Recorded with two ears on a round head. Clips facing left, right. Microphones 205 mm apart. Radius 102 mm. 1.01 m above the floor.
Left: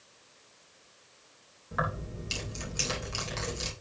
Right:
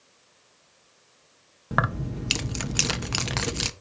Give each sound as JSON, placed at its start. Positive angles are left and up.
{"t": 1.7, "sound": "keys jangling", "side_deg": -75, "distance_m": 0.7}